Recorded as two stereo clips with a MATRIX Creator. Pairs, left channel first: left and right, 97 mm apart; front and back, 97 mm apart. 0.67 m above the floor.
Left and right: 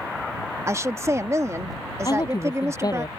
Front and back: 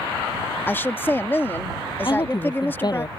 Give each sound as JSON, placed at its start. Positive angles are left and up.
{"t": 0.7, "sound": "a woman speaking", "azimuth_deg": -55}
{"t": 2.0, "sound": "a woman speaking", "azimuth_deg": 40}